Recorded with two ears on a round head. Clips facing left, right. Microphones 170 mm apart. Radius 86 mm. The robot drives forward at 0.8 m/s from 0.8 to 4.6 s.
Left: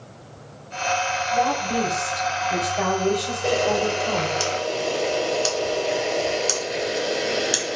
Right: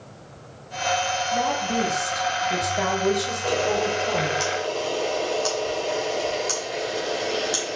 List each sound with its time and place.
1.3 s a woman speaking: 10° right (ahead or behind), 5 m; by 4.4 s 25° right (ahead or behind), 2.5 m
3.4 s a camera shutter: 45° left (ahead or behind), 3 m; by 7.8 s 35° left (ahead or behind), 3.5 m